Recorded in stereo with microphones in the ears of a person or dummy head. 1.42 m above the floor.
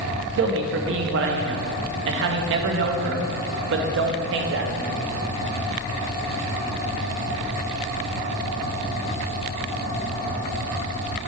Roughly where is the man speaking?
Right.